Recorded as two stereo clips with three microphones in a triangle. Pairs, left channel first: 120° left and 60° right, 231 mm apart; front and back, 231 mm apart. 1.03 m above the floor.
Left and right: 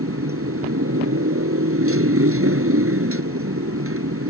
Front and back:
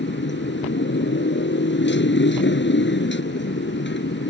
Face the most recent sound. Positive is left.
turn(degrees=-40)